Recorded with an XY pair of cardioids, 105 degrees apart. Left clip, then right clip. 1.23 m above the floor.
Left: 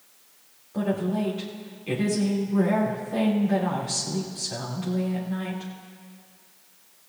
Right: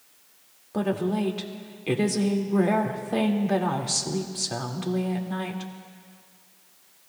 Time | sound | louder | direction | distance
0.7 | a woman speaking | right 1 dB | 60° right | 2 m